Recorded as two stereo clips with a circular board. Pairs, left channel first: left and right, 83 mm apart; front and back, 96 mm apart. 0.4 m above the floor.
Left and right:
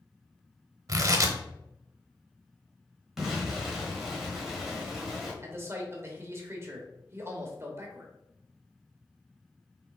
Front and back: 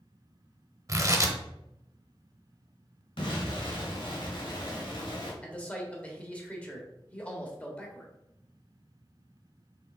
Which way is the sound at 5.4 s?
65° right.